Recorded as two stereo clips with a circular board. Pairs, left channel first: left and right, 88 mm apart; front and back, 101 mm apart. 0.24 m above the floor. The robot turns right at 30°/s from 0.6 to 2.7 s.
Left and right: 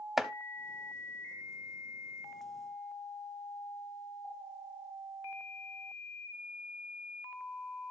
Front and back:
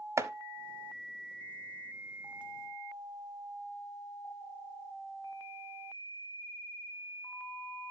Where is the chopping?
175° right, 0.6 m.